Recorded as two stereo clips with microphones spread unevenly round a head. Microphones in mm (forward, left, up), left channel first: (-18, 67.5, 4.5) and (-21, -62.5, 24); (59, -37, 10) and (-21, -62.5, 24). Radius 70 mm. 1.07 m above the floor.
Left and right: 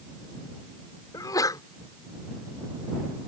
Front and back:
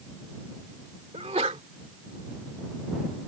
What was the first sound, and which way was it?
A sneeze, 155° left.